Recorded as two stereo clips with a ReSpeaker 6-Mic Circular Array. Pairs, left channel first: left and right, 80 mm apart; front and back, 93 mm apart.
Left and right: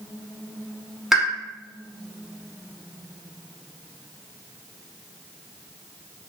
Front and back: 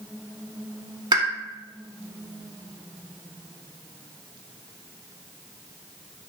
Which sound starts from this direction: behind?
A pop, at 1.1 s.